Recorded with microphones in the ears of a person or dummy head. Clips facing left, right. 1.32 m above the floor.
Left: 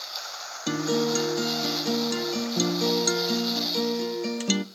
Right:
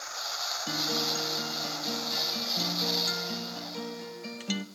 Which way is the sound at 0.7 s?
60° left (ahead or behind).